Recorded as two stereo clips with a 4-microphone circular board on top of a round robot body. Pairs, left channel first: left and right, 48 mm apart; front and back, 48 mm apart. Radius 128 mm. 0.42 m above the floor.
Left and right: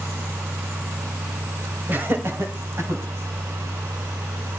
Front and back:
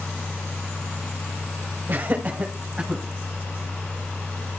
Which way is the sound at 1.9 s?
140° right.